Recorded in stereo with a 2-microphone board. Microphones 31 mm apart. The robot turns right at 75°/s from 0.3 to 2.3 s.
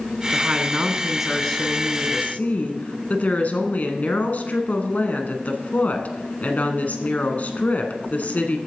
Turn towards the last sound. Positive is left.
turn(degrees=75)